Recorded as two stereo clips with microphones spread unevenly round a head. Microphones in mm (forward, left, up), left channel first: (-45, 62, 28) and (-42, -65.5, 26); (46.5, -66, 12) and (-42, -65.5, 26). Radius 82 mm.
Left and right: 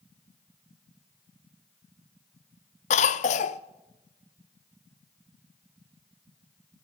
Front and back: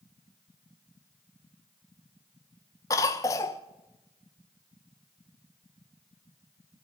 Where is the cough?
60° left, 0.5 m.